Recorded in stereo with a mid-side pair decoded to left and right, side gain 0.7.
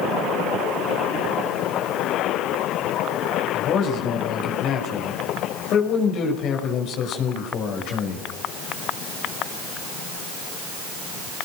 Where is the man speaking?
55° left, 6 m.